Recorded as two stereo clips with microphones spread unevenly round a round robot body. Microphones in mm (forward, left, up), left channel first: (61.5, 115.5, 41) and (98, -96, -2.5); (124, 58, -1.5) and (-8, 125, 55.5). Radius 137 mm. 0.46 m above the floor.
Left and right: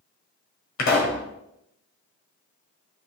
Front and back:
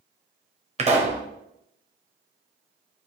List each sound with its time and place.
0.8 s a pop: 100° left, 1.8 m